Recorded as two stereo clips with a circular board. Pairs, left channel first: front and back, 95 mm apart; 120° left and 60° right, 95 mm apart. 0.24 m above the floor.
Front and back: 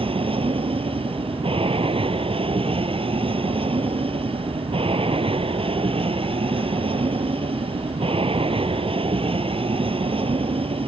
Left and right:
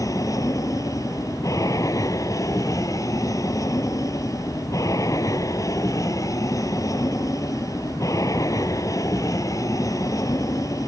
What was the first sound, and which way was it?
An aircraft, 175° left.